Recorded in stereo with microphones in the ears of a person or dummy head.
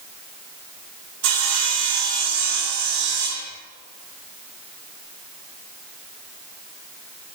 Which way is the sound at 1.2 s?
70° right (ahead or behind).